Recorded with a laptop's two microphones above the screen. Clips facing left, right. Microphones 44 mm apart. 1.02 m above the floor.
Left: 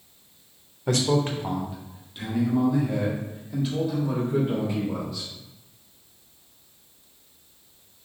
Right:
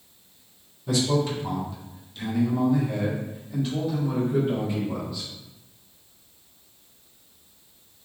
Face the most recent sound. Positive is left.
turn(degrees=0)  # may be behind; listen again after turning